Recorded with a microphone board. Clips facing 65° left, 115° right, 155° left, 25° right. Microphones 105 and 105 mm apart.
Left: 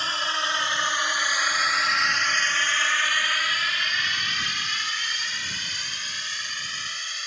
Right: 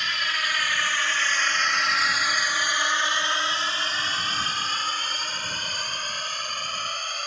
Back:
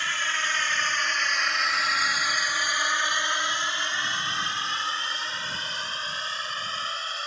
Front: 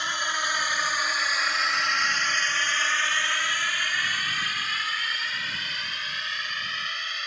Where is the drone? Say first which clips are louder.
Left 2 dB, front 1 dB; 35° left; by 7.3 s 150° right.